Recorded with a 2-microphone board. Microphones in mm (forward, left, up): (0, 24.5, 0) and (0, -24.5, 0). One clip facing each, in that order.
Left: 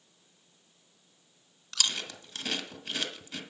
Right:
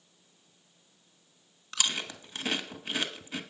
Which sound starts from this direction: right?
Chewing, at 1.7 s.